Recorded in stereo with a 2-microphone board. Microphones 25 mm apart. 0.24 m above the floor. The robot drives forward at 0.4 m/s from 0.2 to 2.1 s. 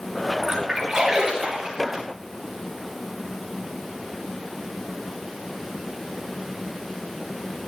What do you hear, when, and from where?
0.4 s a splash: 15° right (ahead or behind), 6 m